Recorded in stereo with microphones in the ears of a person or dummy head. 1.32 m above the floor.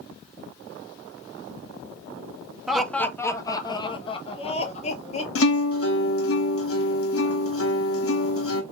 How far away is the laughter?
About 0.8 m.